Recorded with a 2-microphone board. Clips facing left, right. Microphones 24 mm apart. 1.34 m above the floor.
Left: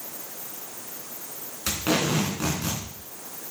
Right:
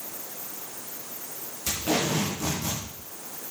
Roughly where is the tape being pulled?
Left.